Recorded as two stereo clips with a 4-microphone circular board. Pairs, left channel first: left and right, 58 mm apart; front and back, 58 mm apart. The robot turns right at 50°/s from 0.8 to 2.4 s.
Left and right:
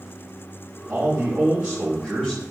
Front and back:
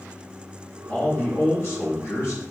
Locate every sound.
0.9 s a man speaking: 55° right, 1.4 m; by 2.5 s 20° left, 1.4 m